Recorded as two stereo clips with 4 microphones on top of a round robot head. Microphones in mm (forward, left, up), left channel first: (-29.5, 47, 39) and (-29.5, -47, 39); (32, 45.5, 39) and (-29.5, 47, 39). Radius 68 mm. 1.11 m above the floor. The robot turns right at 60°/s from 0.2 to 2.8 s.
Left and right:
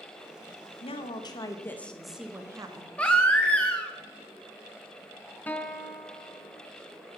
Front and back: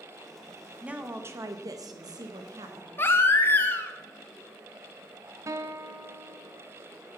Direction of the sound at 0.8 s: 105° left.